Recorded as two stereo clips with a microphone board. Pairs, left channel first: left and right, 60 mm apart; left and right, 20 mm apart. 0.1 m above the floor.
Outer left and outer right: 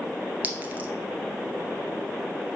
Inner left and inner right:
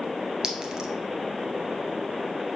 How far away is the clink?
About 0.9 m.